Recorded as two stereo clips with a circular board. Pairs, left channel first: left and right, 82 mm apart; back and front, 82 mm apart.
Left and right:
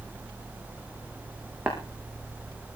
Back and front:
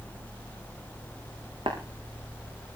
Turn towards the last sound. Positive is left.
turn(degrees=-10)